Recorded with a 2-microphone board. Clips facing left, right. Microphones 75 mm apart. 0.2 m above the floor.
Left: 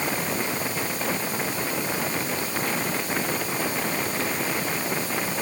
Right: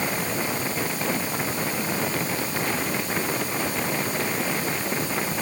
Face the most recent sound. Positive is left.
No sound to turn to.